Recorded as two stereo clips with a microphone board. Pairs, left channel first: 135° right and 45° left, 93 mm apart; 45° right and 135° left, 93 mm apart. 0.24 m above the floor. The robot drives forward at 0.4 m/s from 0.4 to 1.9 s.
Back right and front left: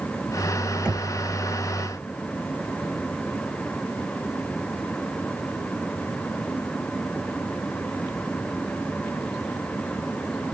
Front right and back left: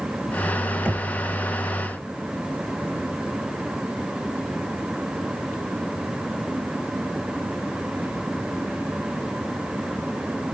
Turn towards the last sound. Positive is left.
turn(degrees=150)